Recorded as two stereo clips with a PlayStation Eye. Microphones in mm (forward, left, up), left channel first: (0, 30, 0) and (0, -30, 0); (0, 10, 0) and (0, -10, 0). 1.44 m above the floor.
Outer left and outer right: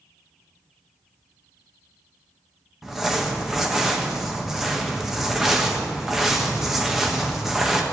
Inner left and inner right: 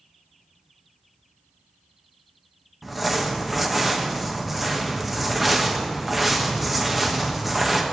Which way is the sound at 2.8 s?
5° right (ahead or behind).